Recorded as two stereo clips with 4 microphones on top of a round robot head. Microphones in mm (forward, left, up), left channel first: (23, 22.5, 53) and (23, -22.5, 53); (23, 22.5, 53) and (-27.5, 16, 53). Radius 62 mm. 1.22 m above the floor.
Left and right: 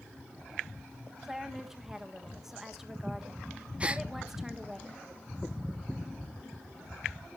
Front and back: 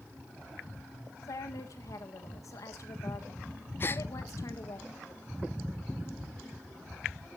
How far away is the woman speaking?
About 1.6 m.